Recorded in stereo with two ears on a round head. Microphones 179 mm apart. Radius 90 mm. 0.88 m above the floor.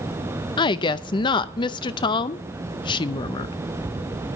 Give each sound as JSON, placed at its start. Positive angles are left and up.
{"t": 0.6, "sound": "a woman speaking", "side_deg": 20, "distance_m": 0.5}